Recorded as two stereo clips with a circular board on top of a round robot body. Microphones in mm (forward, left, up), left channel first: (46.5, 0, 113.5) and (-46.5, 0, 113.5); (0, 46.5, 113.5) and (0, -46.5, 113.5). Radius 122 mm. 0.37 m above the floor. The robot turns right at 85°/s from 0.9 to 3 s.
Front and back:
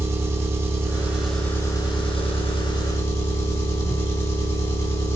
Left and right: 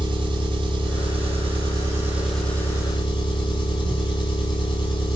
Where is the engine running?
125° right, 3.5 m; by 5.2 s 55° left, 3.5 m.